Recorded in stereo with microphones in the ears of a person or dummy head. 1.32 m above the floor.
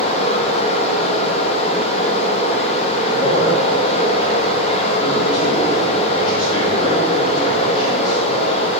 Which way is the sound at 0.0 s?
45° left (ahead or behind).